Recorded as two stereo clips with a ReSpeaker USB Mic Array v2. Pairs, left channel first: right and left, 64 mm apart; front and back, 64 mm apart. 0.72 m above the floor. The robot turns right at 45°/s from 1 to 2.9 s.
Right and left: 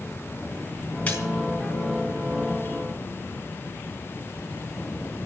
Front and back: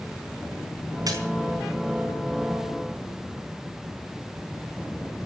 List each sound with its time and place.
1.1 s a splash: 160° right, 4.5 m; by 1.2 s 155° right, 4.5 m